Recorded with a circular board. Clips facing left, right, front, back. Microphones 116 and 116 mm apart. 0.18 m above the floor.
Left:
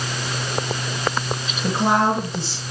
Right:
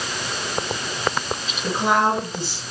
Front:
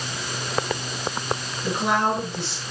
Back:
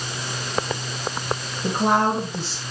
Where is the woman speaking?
145° left, 2.5 m.